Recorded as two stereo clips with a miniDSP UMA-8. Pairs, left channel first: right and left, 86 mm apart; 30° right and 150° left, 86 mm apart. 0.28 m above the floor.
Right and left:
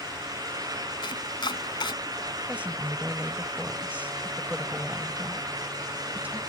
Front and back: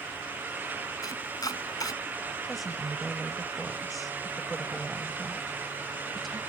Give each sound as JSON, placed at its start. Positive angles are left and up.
{"t": 1.0, "sound": "chopping", "azimuth_deg": -70}
{"t": 2.5, "sound": "a woman speaking", "azimuth_deg": 60}